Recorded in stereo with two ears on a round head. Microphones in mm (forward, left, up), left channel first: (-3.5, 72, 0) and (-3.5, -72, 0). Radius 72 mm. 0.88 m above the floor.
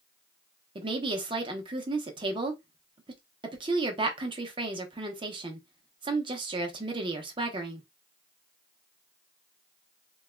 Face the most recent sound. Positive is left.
turn(degrees=-30)  # may be behind; listen again after turning